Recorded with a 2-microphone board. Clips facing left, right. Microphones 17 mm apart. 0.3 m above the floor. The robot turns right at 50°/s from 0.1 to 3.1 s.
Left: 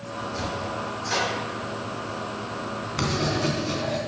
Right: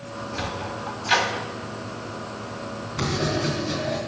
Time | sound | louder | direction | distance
0.3 | a sliding door | even | 40° right (ahead or behind) | 2 m
3.0 | writing | right 1 dB | 25° left (ahead or behind) | 3 m